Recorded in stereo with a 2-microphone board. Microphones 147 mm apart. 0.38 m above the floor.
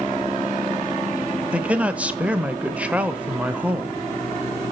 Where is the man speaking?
10° right (ahead or behind), 1.0 m.